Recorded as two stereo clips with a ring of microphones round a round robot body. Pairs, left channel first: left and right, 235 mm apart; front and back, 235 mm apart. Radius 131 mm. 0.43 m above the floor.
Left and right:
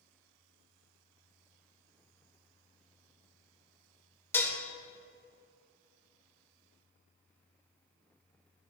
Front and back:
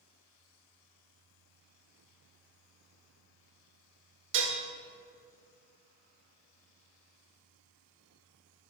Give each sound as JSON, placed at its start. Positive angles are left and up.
{"t": 4.3, "sound": "dishes clattering", "azimuth_deg": 170, "distance_m": 1.0}